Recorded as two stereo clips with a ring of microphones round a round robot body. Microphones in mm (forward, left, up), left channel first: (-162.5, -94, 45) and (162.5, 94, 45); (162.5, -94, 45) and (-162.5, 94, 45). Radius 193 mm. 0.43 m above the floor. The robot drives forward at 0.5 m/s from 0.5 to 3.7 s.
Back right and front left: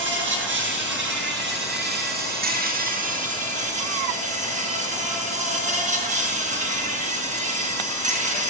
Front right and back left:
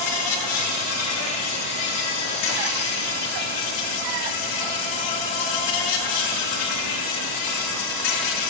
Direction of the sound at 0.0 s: 30° right.